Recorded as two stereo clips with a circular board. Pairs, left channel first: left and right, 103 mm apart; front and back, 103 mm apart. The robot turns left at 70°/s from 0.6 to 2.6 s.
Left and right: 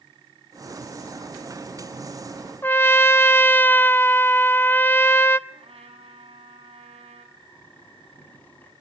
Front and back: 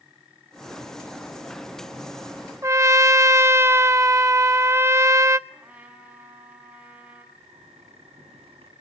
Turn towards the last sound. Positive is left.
turn(degrees=165)